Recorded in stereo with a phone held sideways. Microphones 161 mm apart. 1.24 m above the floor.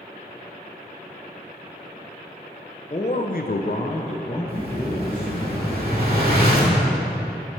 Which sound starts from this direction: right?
An explosion, at 4.5 s.